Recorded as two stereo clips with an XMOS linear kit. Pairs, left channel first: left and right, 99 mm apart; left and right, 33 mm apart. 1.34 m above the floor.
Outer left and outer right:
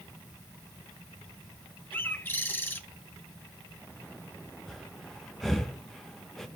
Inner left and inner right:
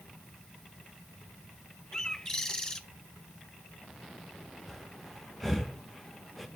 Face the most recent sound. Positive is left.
turn(degrees=5)  # may be behind; listen again after turning